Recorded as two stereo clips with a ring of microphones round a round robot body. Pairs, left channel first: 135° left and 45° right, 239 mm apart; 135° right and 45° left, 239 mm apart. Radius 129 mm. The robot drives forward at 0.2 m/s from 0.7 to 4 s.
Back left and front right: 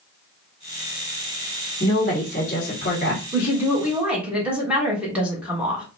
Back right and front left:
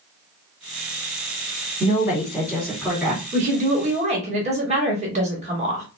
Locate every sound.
1.8 s a woman speaking: 130° left, 1.5 m; by 3.2 s 145° left, 1.6 m
3.3 s a woman speaking: 30° left, 1.2 m; by 5.8 s 35° left, 1.2 m